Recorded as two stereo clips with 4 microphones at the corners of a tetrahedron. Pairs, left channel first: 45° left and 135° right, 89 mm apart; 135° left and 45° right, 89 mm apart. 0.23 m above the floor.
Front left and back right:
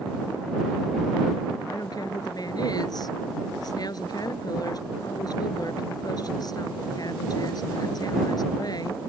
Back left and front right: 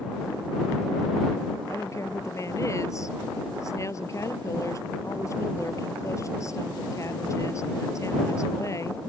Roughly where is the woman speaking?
Left.